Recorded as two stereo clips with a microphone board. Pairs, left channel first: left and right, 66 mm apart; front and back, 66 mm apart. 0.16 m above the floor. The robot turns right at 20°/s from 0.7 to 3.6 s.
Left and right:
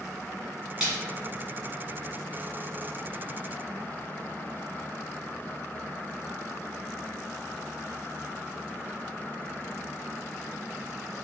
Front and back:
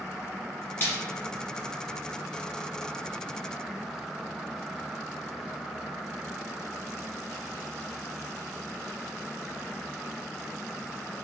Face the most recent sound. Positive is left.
turn(degrees=35)